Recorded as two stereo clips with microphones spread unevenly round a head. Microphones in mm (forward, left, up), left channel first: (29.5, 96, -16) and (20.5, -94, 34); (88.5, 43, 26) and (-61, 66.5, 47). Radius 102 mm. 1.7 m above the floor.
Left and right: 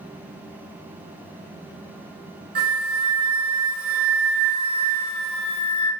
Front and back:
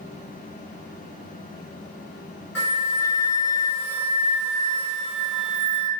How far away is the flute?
About 1.1 m.